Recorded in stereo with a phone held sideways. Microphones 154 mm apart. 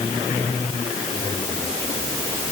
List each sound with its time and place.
Only background noise.